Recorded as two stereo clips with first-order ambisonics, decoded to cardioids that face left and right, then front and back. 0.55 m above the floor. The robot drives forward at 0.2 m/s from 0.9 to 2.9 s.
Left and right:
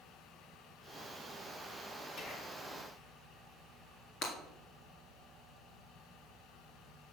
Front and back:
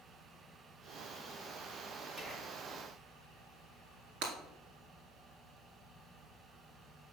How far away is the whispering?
About 1.0 m.